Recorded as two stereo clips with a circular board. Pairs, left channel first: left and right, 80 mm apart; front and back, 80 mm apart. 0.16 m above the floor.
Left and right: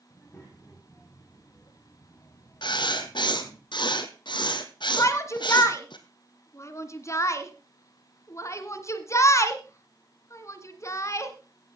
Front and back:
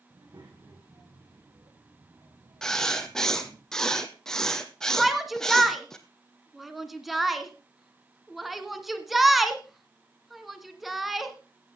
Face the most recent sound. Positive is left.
turn(degrees=90)